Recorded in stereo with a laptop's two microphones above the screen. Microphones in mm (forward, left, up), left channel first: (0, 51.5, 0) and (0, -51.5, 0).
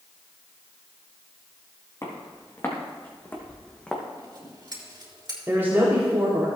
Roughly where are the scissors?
Right.